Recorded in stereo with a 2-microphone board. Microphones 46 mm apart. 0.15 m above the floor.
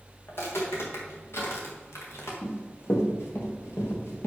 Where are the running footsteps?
65° left (ahead or behind), 3 m; by 4.3 s 70° left (ahead or behind), 3.5 m.